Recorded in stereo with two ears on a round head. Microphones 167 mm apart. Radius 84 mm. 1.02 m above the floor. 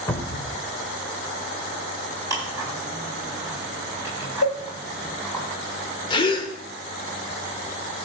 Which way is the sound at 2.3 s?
15° right (ahead or behind).